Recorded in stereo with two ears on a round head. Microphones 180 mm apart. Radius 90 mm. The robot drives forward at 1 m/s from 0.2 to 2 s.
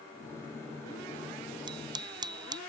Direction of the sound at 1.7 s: 25° right (ahead or behind).